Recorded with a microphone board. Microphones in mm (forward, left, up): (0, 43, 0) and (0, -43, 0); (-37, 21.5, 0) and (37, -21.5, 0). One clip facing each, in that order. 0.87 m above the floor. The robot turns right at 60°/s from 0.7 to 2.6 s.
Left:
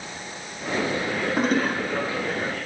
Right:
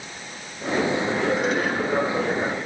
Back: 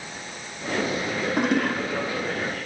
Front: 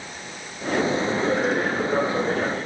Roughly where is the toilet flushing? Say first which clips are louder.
Left 1 dB, even; behind left.